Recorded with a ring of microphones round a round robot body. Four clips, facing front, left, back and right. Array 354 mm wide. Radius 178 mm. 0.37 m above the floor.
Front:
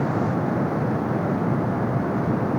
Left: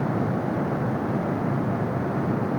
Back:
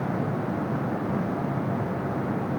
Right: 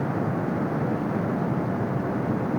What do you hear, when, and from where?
Only background noise.